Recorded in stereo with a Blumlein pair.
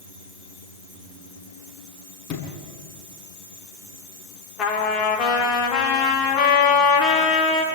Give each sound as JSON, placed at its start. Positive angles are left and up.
{"t": 2.3, "sound": "a sliding door", "azimuth_deg": 35, "distance_m": 6.0}
{"t": 4.6, "sound": "a trumpet", "azimuth_deg": 30, "distance_m": 4.0}